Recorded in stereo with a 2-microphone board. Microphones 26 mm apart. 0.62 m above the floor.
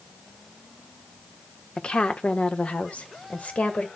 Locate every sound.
1.8 s a woman speaking: 45° left (ahead or behind), 1.2 m; by 3.9 s 70° left (ahead or behind), 2.5 m